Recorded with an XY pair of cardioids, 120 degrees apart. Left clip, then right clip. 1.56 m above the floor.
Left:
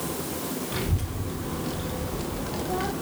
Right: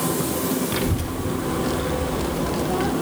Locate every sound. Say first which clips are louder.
0.7 s a child speaking: right 7 dB; 35° right, 2 m; by 2.9 s 15° right, 0.8 m